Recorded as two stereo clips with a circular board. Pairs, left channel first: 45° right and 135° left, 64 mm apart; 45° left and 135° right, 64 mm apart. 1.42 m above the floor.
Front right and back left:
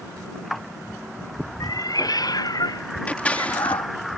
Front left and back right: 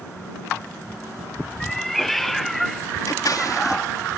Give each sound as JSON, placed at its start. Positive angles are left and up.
{"t": 1.6, "sound": "a cat meowing", "azimuth_deg": -45}
{"t": 3.1, "sound": "scissors", "azimuth_deg": 20}